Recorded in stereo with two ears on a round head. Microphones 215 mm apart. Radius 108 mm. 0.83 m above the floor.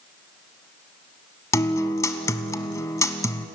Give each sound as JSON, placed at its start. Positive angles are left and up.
{"t": 1.5, "sound": "a guitar", "side_deg": 15, "distance_m": 1.0}